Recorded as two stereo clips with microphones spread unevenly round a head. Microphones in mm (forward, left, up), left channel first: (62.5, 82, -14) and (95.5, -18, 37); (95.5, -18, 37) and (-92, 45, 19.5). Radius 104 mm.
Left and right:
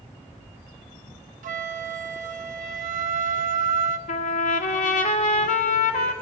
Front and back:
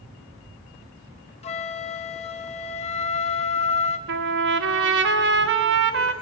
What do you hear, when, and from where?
1.4 s a flute: 80° right, 1.4 m
4.1 s a trumpet: 130° left, 1.7 m